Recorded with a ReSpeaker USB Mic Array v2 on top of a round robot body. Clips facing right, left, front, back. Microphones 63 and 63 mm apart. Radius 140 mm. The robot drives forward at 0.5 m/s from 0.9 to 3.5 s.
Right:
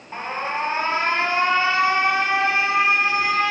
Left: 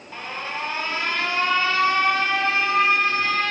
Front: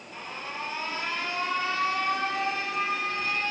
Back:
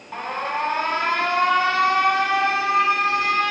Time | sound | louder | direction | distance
0.1 | an alarm | right 5 dB, back 12 dB | 150° right | 1.2 m